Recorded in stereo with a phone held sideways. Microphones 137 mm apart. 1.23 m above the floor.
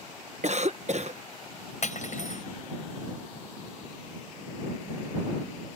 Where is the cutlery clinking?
65° left (ahead or behind).